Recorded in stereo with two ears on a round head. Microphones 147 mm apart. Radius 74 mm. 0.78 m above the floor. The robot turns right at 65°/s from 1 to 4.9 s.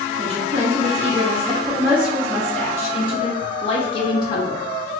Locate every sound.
0.2 s a woman speaking: 80° right, 0.6 m; by 4.9 s 175° left, 0.6 m